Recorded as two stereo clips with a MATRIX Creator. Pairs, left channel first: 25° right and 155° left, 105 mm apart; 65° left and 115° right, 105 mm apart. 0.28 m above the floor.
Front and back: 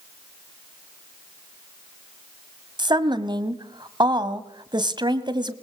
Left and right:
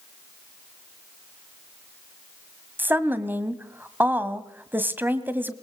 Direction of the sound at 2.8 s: Straight behind.